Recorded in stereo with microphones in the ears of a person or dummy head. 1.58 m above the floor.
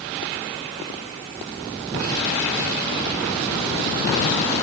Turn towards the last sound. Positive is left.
No sound to turn to.